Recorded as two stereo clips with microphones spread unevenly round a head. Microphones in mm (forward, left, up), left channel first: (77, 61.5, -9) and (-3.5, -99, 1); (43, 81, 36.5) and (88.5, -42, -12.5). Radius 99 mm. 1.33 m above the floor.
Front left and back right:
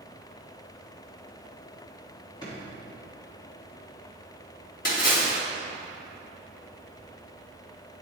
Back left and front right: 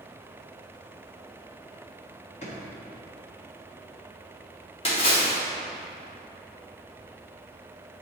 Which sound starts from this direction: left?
A splash, at 4.8 s.